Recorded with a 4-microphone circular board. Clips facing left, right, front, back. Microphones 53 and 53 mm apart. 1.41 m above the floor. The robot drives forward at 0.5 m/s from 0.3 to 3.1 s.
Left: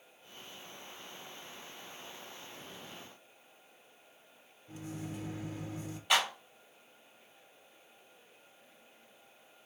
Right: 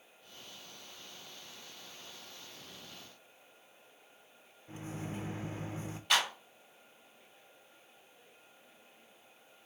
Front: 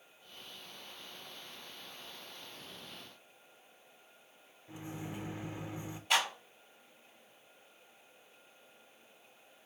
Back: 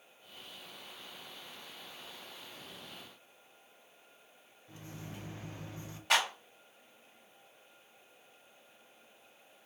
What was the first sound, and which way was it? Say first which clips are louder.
A microwave: even, front 5 dB; 60° right.